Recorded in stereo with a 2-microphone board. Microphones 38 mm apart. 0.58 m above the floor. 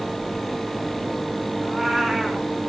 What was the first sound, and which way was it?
A cat meowing, 10° right (ahead or behind).